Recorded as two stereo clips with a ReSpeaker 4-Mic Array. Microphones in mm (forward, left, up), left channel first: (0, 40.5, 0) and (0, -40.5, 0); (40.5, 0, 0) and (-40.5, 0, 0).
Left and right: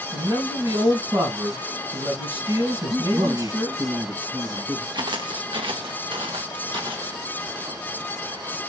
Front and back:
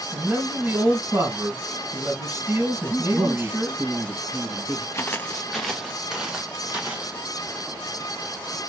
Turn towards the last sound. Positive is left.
turn(degrees=-105)